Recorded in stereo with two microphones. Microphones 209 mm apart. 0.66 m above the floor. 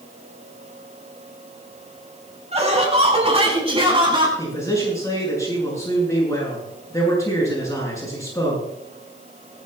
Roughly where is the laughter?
Right.